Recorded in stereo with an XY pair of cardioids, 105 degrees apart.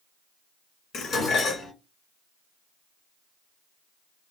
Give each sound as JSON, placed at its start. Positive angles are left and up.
{"t": 0.9, "sound": "dishes clattering", "azimuth_deg": 65, "distance_m": 1.4}